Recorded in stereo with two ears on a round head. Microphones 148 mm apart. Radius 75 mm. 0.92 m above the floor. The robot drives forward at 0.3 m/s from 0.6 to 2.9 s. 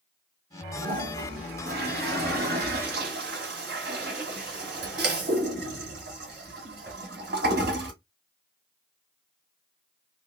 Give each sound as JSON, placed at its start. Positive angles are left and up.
{"t": 0.8, "sound": "a toilet flushing", "side_deg": -55, "distance_m": 1.5}